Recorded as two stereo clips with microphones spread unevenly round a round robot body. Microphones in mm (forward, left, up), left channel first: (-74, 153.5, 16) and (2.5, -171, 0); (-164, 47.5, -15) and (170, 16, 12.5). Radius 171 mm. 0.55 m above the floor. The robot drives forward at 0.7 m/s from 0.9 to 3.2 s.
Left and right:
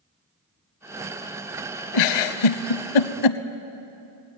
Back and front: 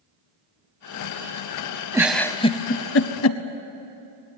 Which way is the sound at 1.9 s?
75° left.